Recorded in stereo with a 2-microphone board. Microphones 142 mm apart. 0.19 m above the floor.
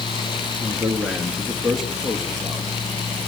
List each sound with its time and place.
0.6 s a man speaking: 10° right (ahead or behind), 3 m; by 2.7 s 5° left (ahead or behind), 4 m